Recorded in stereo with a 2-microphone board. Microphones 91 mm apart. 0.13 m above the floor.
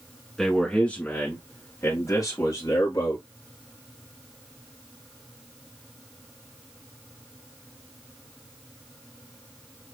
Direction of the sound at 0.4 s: 5° left (ahead or behind).